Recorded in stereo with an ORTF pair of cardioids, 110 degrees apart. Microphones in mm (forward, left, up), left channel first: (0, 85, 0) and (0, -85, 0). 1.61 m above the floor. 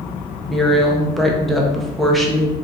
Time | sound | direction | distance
0.5 | a woman speaking | straight ahead | 0.7 m